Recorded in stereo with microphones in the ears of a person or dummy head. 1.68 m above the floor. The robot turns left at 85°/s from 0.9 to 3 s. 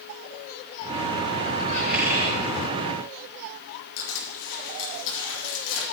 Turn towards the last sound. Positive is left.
turn(degrees=75)  # may be behind; listen again after turning